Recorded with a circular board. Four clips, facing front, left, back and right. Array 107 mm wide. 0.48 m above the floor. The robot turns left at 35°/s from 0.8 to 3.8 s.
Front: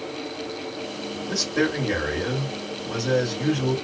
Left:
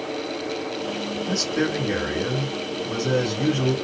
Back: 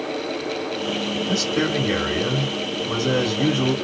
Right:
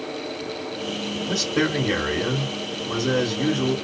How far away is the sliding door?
No sliding door in this recording.